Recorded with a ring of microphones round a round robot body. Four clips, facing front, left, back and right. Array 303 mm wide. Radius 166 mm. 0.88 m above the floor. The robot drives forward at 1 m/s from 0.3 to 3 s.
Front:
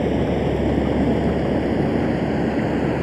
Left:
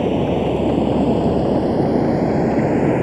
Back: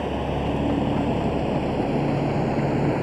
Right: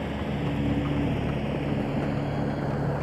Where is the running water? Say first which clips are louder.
Left 13 dB, front 6 dB; 60° left; by 3.0 s 80° left.